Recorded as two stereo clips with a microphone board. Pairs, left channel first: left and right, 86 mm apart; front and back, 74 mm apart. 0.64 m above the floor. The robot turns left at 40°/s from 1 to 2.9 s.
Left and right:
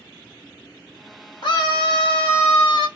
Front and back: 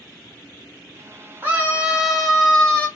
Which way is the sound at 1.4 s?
120° left.